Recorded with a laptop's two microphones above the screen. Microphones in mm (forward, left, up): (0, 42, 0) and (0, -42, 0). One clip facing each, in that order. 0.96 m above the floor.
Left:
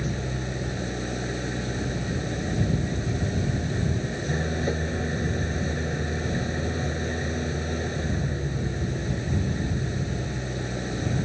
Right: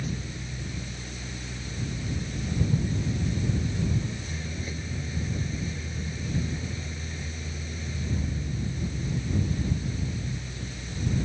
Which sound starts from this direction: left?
An engine running, at 0.0 s.